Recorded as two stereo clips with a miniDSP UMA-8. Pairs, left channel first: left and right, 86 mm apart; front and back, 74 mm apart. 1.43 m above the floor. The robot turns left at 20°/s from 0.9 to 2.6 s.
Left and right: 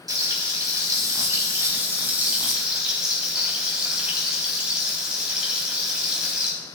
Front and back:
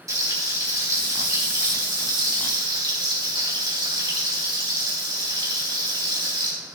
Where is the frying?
135° right, 3.5 m; by 6.5 s 170° right, 3.5 m.